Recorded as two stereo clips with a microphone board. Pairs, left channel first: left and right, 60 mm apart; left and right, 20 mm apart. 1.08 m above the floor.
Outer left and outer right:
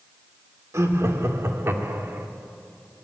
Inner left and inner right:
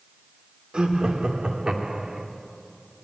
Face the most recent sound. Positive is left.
turn(degrees=-35)  # may be behind; listen again after turning